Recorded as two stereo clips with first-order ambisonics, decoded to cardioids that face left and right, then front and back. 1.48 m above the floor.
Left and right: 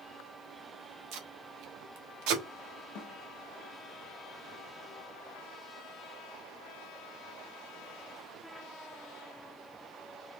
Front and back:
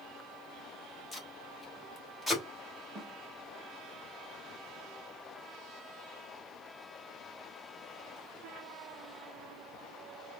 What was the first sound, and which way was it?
Tape being pulled, 90° right.